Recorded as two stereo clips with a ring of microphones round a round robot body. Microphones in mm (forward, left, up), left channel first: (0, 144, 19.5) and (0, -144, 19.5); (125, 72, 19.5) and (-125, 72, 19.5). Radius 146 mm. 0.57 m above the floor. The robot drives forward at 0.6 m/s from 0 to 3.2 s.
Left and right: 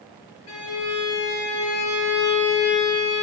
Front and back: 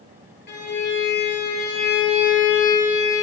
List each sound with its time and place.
0.5 s a violin: 45° left, 4.5 m; by 3.2 s 65° left, 3.5 m